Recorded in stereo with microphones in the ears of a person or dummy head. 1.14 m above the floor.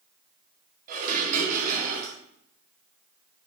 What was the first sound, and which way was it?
Dishes clattering, 50° right (ahead or behind).